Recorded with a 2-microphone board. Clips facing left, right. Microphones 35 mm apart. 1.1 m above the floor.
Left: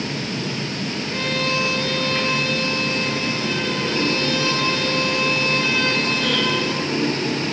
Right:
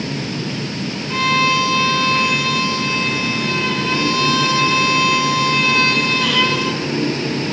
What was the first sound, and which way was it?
A violin, 80° right.